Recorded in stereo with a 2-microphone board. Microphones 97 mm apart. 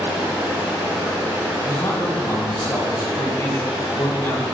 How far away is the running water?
About 1.7 m.